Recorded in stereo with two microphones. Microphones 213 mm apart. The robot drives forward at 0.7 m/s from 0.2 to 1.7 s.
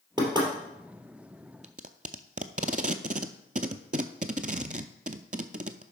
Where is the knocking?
20° right (ahead or behind), 3 m.